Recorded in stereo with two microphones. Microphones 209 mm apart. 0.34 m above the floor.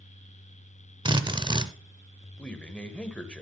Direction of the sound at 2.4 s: 5° left (ahead or behind).